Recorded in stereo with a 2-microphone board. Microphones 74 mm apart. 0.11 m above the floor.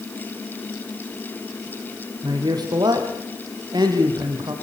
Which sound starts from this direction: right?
A man speaking, at 2.2 s.